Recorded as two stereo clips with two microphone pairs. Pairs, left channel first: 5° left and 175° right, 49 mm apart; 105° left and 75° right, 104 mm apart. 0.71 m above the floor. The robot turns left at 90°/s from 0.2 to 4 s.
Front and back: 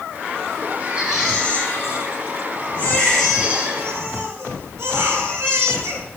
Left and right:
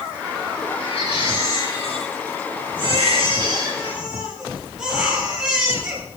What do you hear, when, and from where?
0.8 s a baby crying: 130° left, 9.5 m; by 6.0 s 155° right, 9.5 m